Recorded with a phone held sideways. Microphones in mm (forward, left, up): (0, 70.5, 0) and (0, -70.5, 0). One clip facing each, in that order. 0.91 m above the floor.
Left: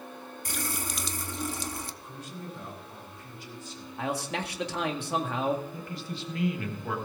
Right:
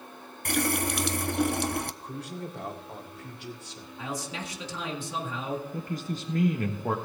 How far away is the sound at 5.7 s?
About 1.2 m.